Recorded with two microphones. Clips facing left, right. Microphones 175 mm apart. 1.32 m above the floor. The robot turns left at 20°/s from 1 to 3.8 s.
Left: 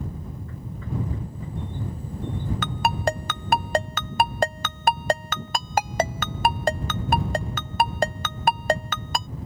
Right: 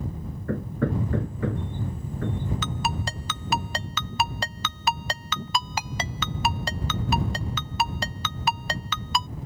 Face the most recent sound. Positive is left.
turn(degrees=50)  # may be behind; listen again after turning